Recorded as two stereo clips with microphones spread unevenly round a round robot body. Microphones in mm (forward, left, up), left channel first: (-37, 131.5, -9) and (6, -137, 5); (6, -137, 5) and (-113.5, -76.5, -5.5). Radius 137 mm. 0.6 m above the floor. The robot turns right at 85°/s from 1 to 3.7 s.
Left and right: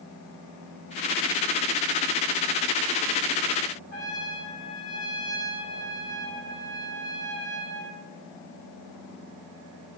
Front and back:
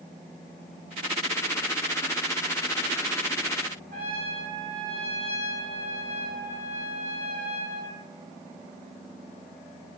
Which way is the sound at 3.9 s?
155° left.